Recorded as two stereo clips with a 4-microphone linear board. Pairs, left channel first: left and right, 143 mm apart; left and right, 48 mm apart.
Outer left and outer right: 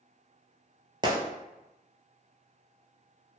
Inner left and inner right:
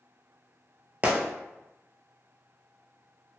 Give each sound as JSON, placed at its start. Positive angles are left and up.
{"t": 1.0, "sound": "a gunshot", "side_deg": -30, "distance_m": 0.5}